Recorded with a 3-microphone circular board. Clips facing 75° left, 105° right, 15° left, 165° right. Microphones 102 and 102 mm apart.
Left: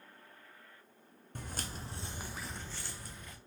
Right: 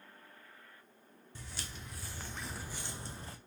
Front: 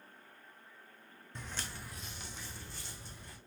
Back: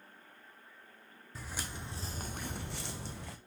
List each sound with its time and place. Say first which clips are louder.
1.4 s footsteps: left 5 dB, back 2 dB; 110° left, 0.7 m; by 3.4 s 155° right, 0.8 m